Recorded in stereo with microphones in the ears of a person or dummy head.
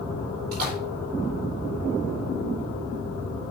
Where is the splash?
55° right (ahead or behind), 4 m.